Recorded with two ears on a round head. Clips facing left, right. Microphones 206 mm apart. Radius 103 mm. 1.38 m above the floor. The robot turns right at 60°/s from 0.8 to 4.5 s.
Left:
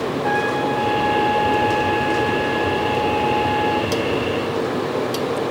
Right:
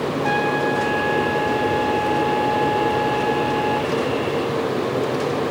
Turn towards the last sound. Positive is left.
turn(degrees=-95)